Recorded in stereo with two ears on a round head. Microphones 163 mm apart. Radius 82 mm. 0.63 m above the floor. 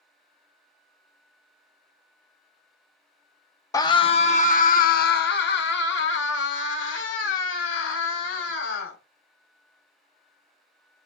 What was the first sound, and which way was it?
A scream, 20° left (ahead or behind).